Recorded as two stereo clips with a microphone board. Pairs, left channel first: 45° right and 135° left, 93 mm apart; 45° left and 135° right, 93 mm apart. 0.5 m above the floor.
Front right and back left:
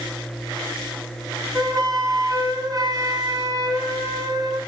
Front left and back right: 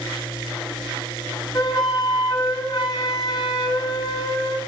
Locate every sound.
1.5 s a flute: 85° left, 1.6 m